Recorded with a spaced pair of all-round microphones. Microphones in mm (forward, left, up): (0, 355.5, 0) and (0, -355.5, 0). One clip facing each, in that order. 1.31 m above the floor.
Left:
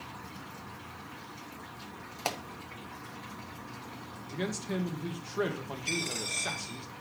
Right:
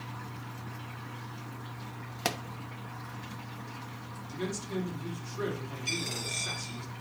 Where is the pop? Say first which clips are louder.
Right 2 dB; 50° right (ahead or behind), 0.6 m.